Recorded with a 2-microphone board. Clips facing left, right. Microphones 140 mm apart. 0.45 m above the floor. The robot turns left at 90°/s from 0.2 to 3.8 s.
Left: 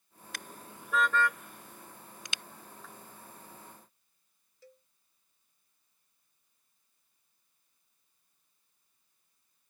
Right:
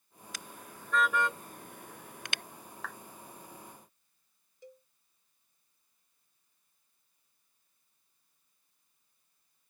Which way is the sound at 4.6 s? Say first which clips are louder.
Right 5 dB; 20° right (ahead or behind).